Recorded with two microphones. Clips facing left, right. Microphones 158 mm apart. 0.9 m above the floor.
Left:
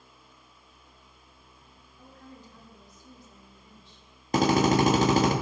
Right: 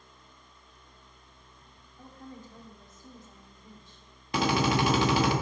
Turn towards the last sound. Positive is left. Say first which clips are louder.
# left 5 dB
turn(degrees=45)  # may be behind; listen again after turning